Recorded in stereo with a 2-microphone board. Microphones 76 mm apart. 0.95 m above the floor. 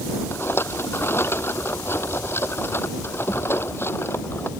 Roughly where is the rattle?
Left.